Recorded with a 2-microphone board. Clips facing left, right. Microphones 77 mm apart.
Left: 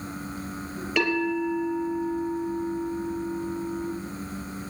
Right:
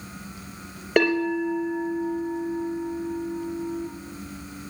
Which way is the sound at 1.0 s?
50° right (ahead or behind).